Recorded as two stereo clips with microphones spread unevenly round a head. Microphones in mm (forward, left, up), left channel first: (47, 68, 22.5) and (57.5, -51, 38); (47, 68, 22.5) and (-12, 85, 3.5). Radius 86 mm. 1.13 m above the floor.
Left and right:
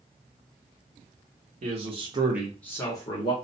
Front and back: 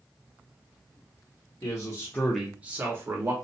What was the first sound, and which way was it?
A man speaking, 60° right.